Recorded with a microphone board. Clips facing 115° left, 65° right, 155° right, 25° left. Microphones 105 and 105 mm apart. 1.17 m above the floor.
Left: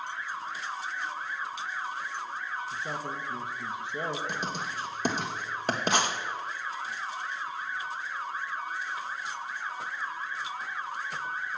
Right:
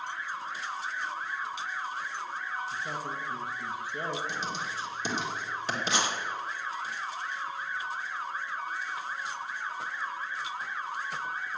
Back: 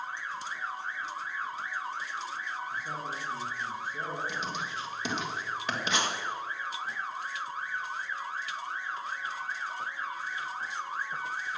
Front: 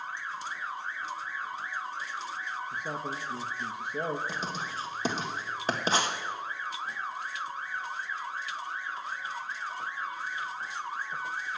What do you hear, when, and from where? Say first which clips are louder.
2.7 s a man speaking: even, front 1 dB; 45° left, 1.2 m
4.3 s writing: left 1 dB, even; 75° left, 1.3 m